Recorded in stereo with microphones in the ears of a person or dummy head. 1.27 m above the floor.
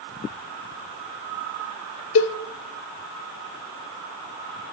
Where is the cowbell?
70° left (ahead or behind), 1.0 m.